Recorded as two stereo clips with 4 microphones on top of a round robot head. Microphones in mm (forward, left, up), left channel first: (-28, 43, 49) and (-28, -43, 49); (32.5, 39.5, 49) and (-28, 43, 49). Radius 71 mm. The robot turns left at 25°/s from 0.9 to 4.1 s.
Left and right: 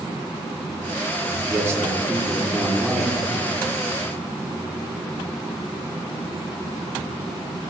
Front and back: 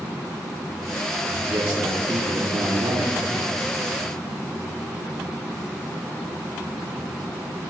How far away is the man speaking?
About 1.6 m.